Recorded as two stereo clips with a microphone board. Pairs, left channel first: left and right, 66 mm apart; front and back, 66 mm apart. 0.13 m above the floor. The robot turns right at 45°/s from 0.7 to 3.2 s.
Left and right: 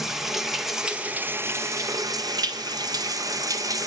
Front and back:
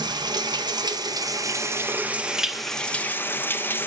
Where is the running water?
175° right, 0.8 m; by 3.9 s 60° right, 0.8 m.